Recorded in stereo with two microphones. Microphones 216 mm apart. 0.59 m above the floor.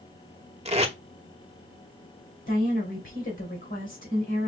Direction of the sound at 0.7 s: 30° right (ahead or behind).